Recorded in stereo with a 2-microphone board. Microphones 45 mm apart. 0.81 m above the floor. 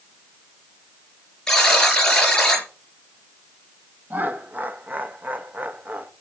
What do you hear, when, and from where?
1.5 s a buzzer: 15° left (ahead or behind), 4.5 m
4.1 s laughter: 40° right (ahead or behind), 1.2 m